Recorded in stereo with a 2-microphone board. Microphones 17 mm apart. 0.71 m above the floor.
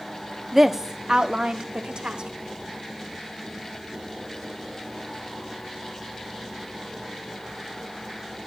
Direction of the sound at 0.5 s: 15° right (ahead or behind).